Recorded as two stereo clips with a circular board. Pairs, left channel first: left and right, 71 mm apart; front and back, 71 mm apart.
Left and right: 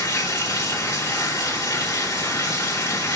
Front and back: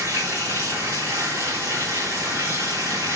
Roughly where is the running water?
Behind left.